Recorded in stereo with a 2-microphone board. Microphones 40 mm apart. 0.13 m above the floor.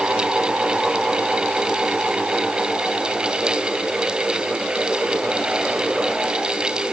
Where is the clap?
No clap in this recording.